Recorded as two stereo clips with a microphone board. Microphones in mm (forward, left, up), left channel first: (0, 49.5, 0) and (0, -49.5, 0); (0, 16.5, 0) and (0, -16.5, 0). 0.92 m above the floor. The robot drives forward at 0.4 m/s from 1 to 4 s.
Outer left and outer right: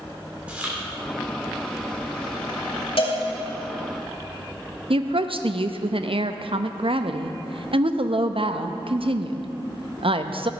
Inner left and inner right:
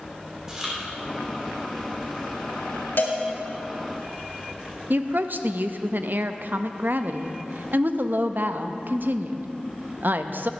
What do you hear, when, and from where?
0.5 s chewing: 15° right (ahead or behind), 2.5 m
3.0 s a cowbell: 65° left (ahead or behind), 2.5 m
4.9 s a woman speaking: 65° right (ahead or behind), 0.6 m